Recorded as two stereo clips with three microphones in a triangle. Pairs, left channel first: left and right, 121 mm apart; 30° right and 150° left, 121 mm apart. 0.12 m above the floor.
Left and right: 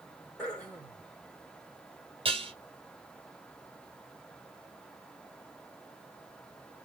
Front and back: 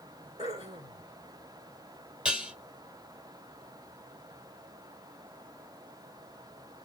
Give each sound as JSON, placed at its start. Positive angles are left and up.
{"t": 0.4, "sound": "throat clearing", "azimuth_deg": 170, "distance_m": 3.0}
{"t": 2.2, "sound": "dishes clattering", "azimuth_deg": -130, "distance_m": 1.9}